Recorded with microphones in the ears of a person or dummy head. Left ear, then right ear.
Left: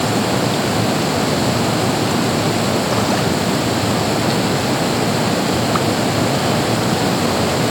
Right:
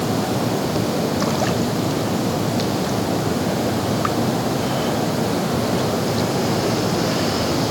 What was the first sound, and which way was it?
Only background noise.